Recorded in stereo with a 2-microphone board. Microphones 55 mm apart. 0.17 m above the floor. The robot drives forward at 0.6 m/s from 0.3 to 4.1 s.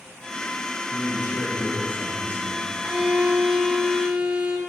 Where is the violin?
20° right (ahead or behind), 1.2 m; by 4.6 s 15° right (ahead or behind), 1.6 m.